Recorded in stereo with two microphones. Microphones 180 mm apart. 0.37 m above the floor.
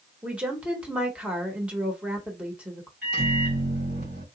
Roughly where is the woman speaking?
Centre.